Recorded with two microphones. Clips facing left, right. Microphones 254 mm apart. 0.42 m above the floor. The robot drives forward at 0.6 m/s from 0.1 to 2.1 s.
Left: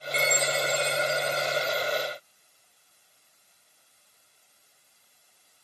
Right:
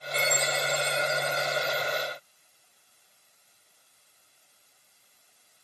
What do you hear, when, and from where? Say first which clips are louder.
0.1 s a chime: left 2 dB; 5° right (ahead or behind), 7 m